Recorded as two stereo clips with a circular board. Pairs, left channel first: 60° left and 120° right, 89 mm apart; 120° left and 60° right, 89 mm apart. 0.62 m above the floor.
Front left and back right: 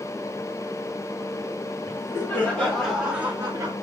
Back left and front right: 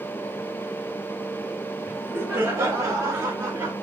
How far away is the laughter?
About 2 m.